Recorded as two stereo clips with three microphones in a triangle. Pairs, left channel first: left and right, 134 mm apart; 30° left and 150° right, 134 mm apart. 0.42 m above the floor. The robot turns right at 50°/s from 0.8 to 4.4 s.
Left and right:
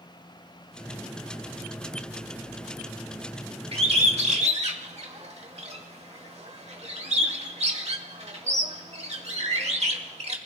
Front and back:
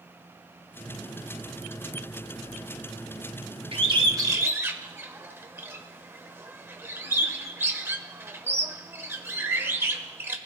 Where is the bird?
115° right, 1.2 m; by 10.4 s 80° right, 1.2 m.